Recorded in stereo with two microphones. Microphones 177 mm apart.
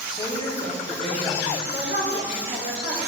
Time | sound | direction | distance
0.2 | a woman speaking | 35° left (ahead or behind) | 1.8 m
1.6 | a woman speaking | 65° left (ahead or behind) | 2 m